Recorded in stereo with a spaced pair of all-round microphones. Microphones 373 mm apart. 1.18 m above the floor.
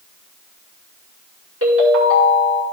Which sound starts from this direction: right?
A ringtone, at 1.6 s.